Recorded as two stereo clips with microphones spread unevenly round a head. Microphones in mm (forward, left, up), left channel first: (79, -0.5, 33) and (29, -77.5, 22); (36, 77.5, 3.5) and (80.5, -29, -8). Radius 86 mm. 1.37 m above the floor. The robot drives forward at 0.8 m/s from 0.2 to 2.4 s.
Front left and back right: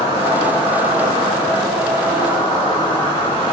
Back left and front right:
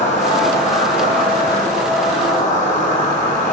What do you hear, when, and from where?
0.0 s an insect: 100° left, 3.5 m; by 3.5 s 125° left, 4.5 m